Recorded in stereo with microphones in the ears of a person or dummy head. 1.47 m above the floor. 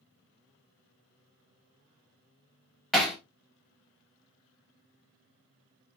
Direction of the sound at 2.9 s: Centre (ahead or behind).